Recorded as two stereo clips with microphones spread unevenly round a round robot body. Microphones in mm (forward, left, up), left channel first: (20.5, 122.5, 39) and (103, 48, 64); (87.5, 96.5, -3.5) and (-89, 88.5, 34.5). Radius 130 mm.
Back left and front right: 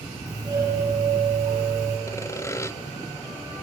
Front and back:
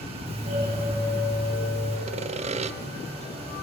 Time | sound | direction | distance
0.3 | a doorbell | 110° right | 3 m
2.1 | sawing | 135° left | 0.6 m